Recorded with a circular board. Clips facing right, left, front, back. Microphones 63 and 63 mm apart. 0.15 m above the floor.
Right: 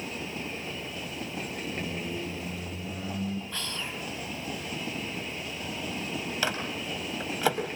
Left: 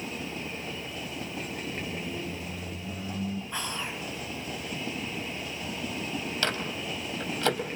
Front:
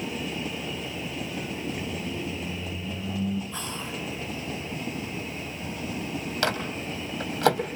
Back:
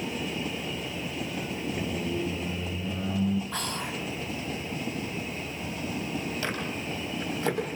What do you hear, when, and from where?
1.7 s a squeak: 155° right, 3.5 m
3.5 s whispering: 160° left, 2.5 m
6.4 s a microwave: 10° right, 4 m